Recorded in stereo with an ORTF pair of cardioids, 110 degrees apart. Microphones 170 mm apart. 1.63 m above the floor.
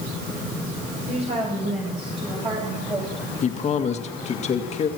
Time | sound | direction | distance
1.1 | a woman speaking | 40° right | 7.5 m
3.4 | a man speaking | 40° left | 1.8 m